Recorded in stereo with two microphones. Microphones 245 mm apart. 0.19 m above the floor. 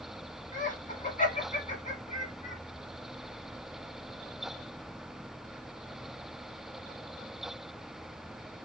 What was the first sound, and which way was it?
Laughter, 30° left (ahead or behind).